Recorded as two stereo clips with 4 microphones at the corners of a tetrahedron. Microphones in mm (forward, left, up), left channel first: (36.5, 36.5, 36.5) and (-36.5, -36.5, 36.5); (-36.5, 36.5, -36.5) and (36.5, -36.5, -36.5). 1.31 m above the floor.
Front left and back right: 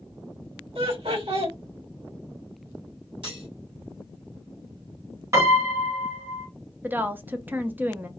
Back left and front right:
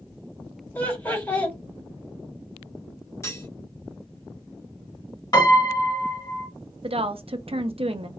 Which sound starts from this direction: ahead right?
A woman speaking, at 6.8 s.